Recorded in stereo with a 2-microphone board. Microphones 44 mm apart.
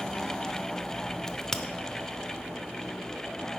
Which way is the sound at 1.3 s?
10° left (ahead or behind).